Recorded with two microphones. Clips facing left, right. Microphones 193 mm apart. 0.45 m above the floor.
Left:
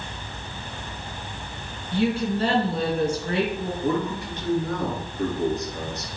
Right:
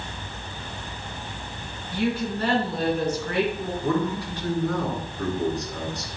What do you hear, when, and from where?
1.9 s a woman speaking: 25° left (ahead or behind), 4.5 m
3.8 s a man speaking: 20° left (ahead or behind), 5 m